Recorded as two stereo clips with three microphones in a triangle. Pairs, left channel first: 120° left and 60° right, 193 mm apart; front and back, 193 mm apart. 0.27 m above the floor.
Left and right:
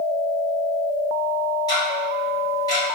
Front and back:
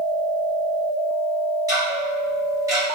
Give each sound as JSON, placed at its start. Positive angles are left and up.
{"t": 1.7, "sound": "ticking", "azimuth_deg": 140, "distance_m": 1.6}